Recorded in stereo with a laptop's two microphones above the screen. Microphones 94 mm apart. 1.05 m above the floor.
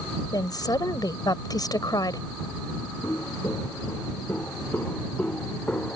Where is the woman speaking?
45° left (ahead or behind).